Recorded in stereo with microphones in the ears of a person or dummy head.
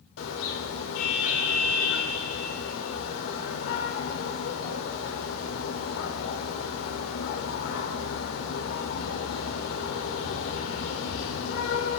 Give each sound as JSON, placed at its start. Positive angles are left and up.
{"t": 0.2, "sound": "a car horn", "side_deg": 75, "distance_m": 3.0}